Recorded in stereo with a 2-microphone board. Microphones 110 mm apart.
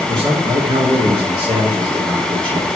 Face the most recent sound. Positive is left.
turn(degrees=-45)  # may be behind; listen again after turning